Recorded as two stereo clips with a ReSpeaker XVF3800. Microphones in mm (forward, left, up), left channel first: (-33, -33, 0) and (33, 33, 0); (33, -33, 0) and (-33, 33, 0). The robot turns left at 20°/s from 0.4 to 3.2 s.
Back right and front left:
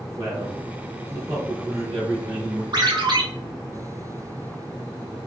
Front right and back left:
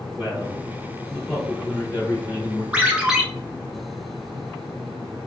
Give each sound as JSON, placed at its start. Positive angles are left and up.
{"t": 0.2, "sound": "a man speaking", "azimuth_deg": 55, "distance_m": 1.3}
{"t": 2.7, "sound": "a ringtone", "azimuth_deg": 60, "distance_m": 0.8}